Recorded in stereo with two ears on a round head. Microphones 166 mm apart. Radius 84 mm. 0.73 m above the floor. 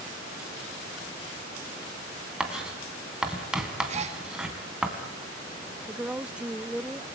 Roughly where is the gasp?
Right.